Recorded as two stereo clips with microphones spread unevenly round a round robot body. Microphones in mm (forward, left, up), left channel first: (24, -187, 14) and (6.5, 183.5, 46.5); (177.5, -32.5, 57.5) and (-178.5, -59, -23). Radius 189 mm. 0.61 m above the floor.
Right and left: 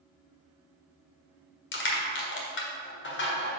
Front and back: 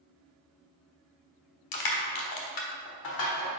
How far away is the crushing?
About 1.5 m.